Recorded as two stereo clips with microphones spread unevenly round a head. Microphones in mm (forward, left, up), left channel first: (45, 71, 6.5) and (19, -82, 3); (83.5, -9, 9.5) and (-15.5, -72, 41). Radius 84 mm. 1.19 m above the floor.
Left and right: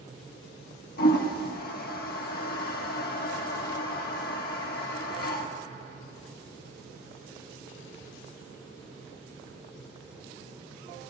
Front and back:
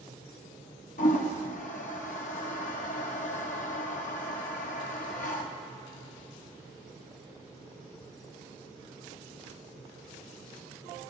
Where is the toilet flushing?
55° left, 1.3 m.